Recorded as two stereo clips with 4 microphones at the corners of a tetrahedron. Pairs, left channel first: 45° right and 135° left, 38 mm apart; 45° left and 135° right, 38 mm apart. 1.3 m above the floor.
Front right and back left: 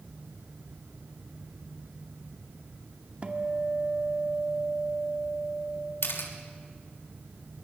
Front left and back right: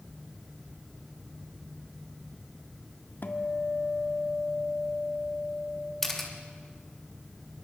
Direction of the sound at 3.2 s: 80° left.